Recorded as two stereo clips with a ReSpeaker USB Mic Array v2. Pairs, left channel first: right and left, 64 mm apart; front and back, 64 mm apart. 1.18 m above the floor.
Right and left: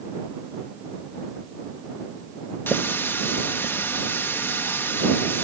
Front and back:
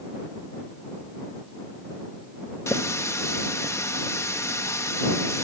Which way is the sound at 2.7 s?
40° right.